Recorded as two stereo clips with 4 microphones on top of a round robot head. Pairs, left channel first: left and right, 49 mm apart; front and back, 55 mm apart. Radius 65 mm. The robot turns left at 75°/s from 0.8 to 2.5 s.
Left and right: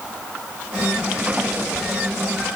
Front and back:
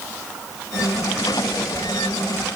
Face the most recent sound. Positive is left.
No sound to turn to.